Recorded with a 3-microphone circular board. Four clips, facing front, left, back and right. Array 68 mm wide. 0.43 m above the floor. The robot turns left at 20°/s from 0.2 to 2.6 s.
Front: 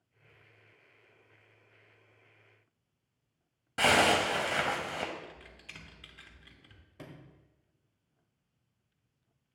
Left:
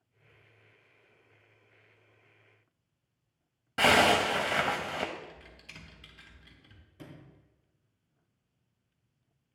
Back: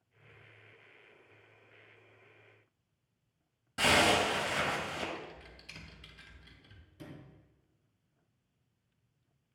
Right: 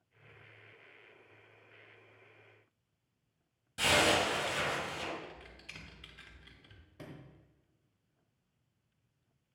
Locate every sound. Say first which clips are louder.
3.8 s a zipper: left 6 dB, front 2 dB; 65° left, 0.9 m
5.2 s typing on a keyboard: even, even; 10° right, 1.0 m
7.0 s a sliding door: even, even; 20° right, 1.2 m